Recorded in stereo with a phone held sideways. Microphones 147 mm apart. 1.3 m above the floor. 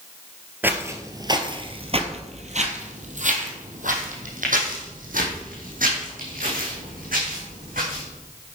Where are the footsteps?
15° right (ahead or behind), 1.6 m; by 8.0 s 75° right (ahead or behind), 5.5 m.